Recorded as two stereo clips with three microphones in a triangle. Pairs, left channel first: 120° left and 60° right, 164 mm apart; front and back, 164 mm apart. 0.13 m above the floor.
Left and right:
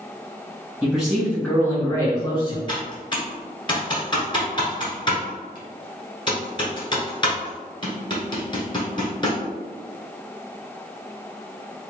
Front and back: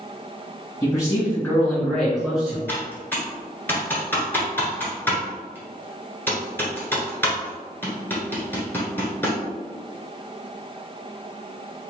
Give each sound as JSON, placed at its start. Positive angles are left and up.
{"t": 0.8, "sound": "a man speaking", "azimuth_deg": 10, "distance_m": 1.4}
{"t": 2.7, "sound": "typing on a keyboard", "azimuth_deg": 70, "distance_m": 1.4}